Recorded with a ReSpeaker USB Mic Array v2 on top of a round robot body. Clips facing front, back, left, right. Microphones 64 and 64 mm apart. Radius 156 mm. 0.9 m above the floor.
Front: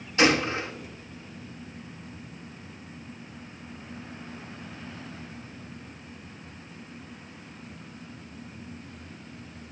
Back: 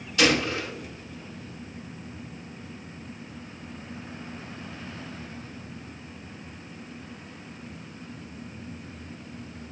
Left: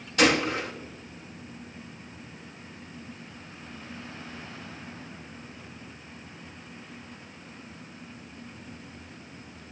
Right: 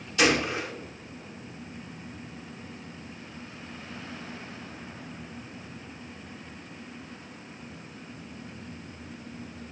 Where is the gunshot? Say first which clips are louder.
Front 1 dB, left 1 dB; 60° left, 1.5 m.